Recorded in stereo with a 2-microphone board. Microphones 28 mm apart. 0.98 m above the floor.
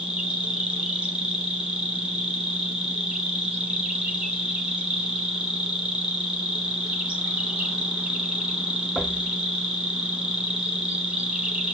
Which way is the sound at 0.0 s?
50° right (ahead or behind).